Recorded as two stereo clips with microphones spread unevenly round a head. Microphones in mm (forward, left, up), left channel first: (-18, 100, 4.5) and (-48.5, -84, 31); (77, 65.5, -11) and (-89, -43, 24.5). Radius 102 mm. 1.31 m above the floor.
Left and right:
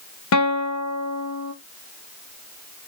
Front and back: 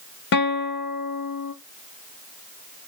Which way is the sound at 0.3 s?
70° left.